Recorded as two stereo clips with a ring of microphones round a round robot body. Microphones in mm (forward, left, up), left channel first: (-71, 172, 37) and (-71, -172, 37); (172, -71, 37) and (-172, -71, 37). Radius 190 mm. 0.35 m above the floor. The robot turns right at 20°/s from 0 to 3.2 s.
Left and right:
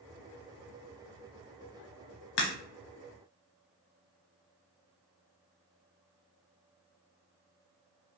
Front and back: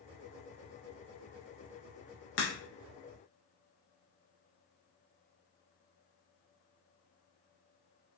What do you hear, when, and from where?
2.4 s a crack: 60° left, 0.6 m